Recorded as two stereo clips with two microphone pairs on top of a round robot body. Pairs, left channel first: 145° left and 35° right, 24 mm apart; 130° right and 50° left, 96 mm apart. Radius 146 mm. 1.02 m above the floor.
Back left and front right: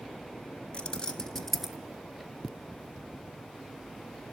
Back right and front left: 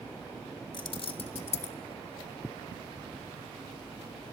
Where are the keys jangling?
170° right, 1.7 m; by 1.8 s 120° right, 1.3 m.